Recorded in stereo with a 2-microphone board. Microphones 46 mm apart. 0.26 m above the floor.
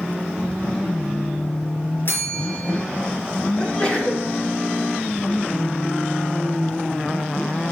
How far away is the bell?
About 4 m.